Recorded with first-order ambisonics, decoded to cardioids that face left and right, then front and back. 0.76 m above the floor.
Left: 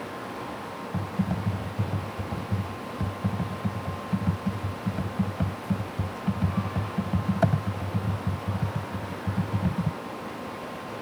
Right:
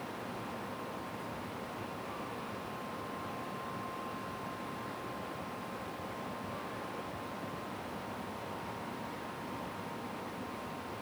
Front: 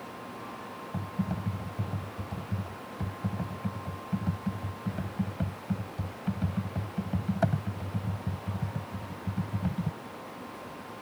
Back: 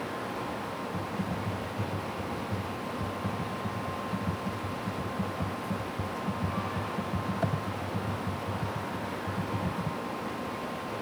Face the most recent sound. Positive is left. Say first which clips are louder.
# left 9 dB, back 3 dB
turn(degrees=75)